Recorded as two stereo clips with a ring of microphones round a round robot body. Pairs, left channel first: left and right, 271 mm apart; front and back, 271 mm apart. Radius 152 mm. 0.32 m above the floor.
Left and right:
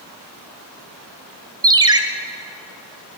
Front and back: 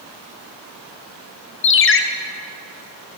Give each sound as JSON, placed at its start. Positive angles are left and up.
{"t": 1.6, "sound": "a ringtone", "azimuth_deg": -20, "distance_m": 1.2}